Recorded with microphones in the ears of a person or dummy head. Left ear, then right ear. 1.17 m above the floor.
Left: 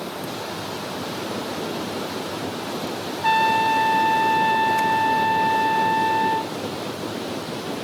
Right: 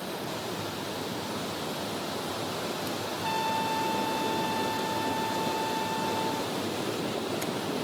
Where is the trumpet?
55° left (ahead or behind), 0.6 m.